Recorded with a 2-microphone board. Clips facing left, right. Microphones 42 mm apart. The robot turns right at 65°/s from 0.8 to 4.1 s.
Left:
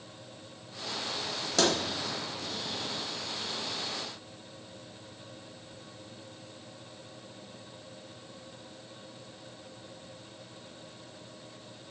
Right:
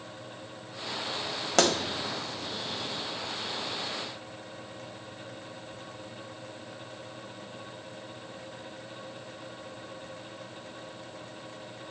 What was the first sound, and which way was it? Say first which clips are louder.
A pop: right 3 dB; 55° right (ahead or behind).